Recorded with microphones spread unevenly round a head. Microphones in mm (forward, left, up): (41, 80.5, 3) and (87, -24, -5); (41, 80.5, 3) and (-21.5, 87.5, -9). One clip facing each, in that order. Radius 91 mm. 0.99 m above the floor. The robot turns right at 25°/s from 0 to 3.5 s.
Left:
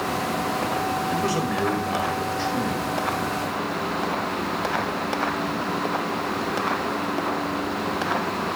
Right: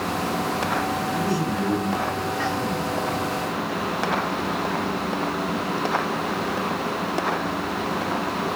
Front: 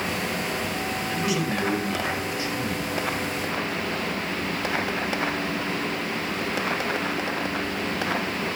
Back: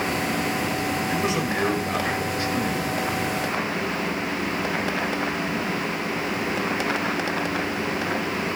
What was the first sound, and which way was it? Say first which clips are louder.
A man speaking: even, back 2 dB; 110° left.